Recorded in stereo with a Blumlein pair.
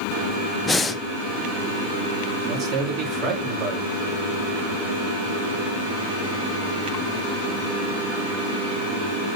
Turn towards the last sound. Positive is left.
turn(degrees=-30)